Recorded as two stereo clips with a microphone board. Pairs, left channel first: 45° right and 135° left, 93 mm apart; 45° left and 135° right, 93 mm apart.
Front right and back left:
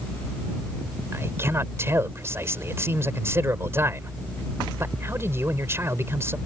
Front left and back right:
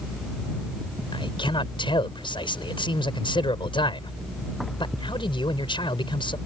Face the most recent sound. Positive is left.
turn(degrees=70)